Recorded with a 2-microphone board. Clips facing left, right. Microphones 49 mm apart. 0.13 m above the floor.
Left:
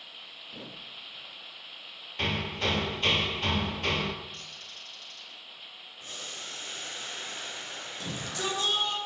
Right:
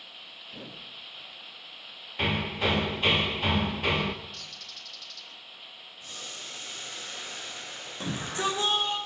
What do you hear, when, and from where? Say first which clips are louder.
2.2 s hammering: right 2 dB; 10° right (ahead or behind), 1.1 m
4.3 s a bird: even; 35° left (ahead or behind), 2 m
6.0 s boiling: left 1 dB; 40° left (ahead or behind), 7 m
8.0 s a shout: right 5 dB; 30° right (ahead or behind), 5.5 m